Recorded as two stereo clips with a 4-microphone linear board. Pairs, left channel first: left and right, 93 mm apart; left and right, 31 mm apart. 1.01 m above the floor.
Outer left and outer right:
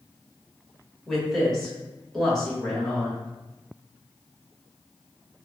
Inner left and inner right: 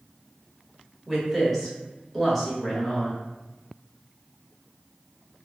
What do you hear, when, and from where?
1.1 s a woman speaking: 5° left (ahead or behind), 1.4 m